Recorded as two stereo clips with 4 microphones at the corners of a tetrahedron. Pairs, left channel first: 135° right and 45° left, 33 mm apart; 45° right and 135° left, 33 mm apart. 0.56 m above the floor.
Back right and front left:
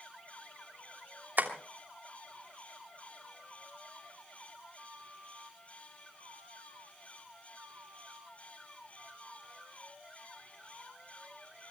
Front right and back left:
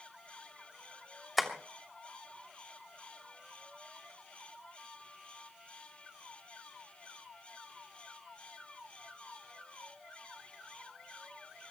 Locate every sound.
1.4 s tapping: 45° left, 2.5 m